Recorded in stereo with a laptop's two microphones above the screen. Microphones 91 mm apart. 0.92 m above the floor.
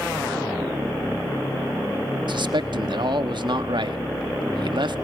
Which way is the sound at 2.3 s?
60° right (ahead or behind).